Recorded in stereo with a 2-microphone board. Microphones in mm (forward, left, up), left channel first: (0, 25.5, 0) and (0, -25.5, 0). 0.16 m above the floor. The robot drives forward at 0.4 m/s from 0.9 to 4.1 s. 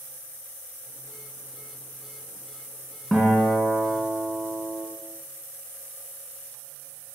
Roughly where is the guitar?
Centre.